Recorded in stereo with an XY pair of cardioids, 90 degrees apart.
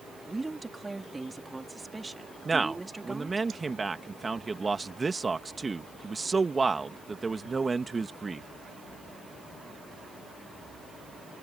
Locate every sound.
0.2 s a woman speaking: 15° right
2.5 s a man speaking: 25° right